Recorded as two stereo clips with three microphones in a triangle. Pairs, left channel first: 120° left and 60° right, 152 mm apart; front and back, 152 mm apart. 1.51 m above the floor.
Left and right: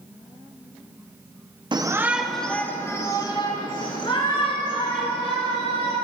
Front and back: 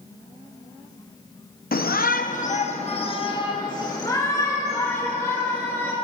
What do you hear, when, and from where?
1.7 s a shout: straight ahead, 0.7 m; by 5.9 s 75° left, 3.5 m